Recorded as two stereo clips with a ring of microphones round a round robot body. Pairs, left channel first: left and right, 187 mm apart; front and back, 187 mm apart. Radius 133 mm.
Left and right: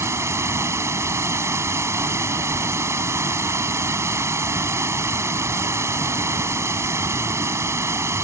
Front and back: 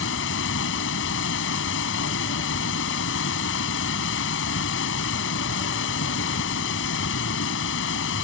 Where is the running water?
15° right.